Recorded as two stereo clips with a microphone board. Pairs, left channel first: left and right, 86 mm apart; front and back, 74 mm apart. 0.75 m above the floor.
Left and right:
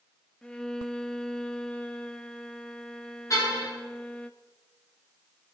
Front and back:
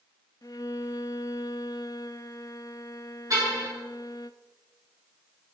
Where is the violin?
10° left, 0.7 m.